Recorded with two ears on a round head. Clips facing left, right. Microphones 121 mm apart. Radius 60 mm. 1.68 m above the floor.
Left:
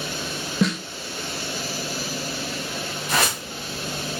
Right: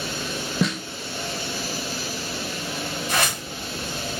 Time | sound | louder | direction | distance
0.6 | a snare drum | left 2 dB | centre (ahead or behind) | 0.5 m
3.1 | a whoosh | left 2 dB | 45° left (ahead or behind) | 1.9 m